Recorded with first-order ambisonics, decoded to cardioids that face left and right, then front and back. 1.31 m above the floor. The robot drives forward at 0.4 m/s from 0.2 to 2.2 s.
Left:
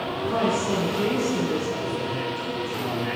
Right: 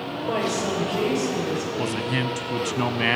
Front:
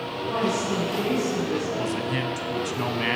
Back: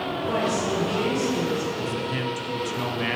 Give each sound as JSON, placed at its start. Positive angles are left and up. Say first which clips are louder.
{"t": 0.2, "sound": "a woman speaking", "louder": "left 1 dB, even", "azimuth_deg": -125, "distance_m": 4.5}
{"t": 1.8, "sound": "a man speaking", "louder": "right 2 dB, front 1 dB", "azimuth_deg": -70, "distance_m": 0.8}